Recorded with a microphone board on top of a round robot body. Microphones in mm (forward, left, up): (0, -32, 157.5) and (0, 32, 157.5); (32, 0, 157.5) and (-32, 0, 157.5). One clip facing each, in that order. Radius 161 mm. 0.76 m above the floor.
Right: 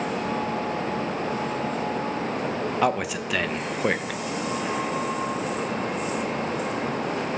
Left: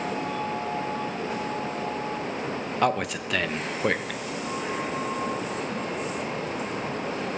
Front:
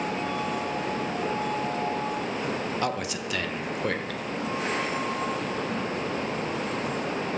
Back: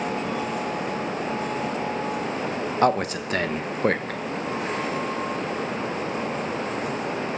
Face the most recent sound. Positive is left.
turn(degrees=-175)